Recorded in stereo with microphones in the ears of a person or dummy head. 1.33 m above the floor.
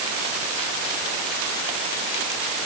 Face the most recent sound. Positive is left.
No sound to turn to.